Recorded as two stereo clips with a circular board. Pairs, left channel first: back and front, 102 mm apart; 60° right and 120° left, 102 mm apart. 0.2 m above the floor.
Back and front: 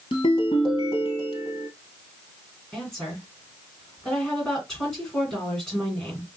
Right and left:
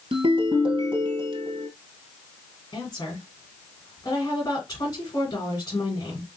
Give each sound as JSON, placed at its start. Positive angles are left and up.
{"t": 0.1, "sound": "a ringtone", "azimuth_deg": 150, "distance_m": 1.6}
{"t": 2.7, "sound": "a woman speaking", "azimuth_deg": -95, "distance_m": 2.5}